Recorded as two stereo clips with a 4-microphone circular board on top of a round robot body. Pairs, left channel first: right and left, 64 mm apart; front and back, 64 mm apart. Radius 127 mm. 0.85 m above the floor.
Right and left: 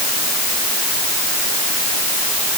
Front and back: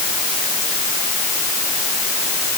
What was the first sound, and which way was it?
Only background noise.